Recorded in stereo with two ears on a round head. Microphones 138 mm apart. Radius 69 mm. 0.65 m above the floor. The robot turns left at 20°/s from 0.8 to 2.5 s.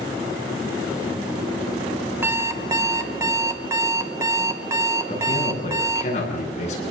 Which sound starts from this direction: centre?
An alarm clock, at 2.2 s.